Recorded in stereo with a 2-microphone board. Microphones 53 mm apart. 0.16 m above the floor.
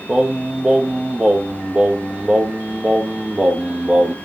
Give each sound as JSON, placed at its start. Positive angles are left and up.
{"t": 0.1, "sound": "singing", "side_deg": -20, "distance_m": 1.5}